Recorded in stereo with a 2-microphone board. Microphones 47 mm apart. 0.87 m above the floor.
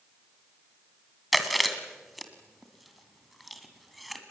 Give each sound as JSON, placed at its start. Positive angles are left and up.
{"t": 1.3, "sound": "chewing", "side_deg": 0, "distance_m": 2.0}